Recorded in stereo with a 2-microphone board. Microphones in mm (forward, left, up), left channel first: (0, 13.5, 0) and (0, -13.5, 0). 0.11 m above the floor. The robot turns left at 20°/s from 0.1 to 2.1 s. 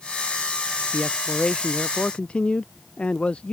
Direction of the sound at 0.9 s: 25° left (ahead or behind).